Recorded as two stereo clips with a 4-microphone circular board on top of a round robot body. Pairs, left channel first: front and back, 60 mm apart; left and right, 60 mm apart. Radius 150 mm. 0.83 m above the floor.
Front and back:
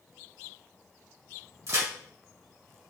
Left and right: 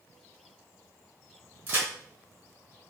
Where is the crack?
150° right, 1.8 m.